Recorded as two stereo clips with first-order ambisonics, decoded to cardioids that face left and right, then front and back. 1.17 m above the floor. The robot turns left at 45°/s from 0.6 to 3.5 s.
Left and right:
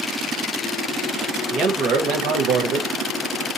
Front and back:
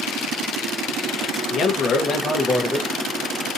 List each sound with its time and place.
1.5 s a man speaking: 45° right, 0.9 m; by 2.9 s 105° right, 0.9 m